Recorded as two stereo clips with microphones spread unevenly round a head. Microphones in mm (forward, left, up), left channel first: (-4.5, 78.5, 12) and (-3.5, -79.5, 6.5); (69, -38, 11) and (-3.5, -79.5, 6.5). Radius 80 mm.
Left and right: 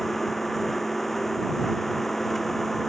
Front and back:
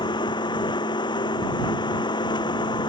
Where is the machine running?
Straight ahead.